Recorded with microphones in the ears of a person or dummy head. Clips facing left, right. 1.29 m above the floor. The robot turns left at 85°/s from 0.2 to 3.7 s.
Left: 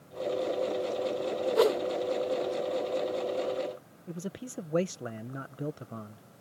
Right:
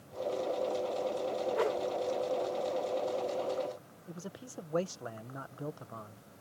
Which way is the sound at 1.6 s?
55° left (ahead or behind).